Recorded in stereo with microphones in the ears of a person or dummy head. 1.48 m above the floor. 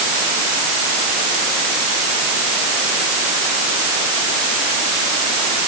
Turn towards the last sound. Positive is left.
No sound to turn to.